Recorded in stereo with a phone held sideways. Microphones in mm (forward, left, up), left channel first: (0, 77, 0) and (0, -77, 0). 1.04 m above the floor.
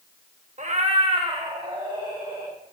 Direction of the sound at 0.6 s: 50° right (ahead or behind).